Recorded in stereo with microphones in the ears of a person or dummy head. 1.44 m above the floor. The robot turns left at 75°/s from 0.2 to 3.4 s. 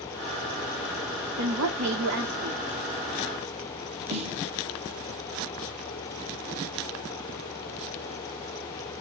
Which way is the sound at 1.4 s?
60° right.